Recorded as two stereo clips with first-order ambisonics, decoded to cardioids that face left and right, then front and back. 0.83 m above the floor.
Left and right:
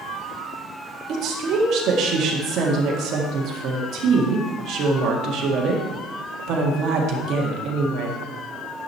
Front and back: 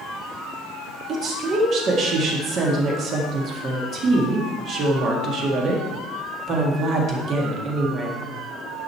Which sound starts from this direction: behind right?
A woman speaking, at 1.1 s.